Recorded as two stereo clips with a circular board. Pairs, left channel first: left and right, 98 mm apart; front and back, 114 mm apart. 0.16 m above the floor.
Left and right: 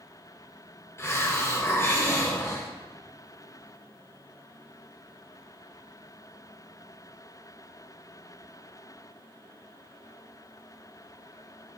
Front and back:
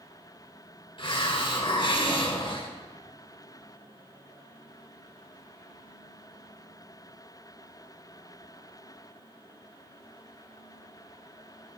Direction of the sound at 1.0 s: 35° left.